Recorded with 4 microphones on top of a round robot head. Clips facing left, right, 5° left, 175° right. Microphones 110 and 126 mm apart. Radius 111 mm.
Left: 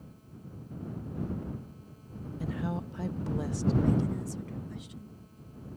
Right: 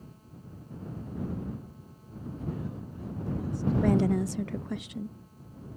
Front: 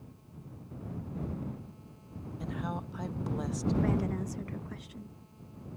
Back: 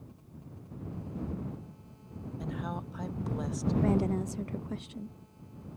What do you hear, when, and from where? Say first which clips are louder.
2.4 s a woman speaking: left 4 dB, front 1 dB; 95° left
3.8 s a woman speaking: right 4 dB, back 3 dB; 110° right